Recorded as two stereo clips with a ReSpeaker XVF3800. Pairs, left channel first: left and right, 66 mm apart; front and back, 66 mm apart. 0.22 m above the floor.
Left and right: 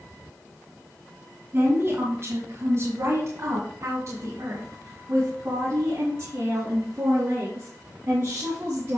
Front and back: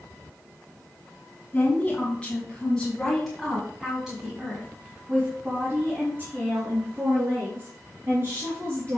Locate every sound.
1.5 s a woman speaking: 55° right, 2 m; by 9.0 s 140° right, 4 m